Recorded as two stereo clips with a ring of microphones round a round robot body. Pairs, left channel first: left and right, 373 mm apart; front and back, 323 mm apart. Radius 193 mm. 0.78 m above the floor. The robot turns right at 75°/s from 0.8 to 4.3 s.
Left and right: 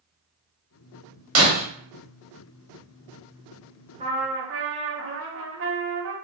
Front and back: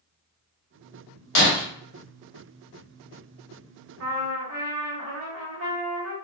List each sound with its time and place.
1.4 s breaking glass: 35° right, 0.9 m; by 1.6 s 15° right, 0.9 m
4.0 s a trumpet: 160° right, 0.8 m; by 6.1 s 140° right, 0.8 m